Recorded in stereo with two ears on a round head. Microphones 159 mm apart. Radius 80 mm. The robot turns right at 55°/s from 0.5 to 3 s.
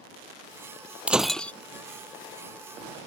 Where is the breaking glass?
5° right (ahead or behind); by 1.5 s 10° left (ahead or behind).